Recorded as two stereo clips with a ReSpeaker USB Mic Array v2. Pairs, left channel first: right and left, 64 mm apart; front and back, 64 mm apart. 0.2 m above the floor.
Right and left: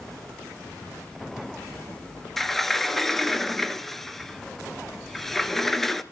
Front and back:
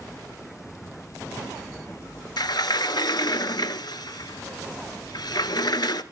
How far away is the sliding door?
About 0.7 m.